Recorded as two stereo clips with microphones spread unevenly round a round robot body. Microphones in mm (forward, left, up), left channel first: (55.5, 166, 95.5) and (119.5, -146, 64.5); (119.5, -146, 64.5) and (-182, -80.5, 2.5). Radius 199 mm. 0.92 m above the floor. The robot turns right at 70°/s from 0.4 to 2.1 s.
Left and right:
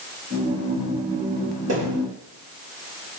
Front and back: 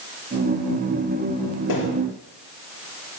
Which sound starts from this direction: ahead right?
A thud, at 1.7 s.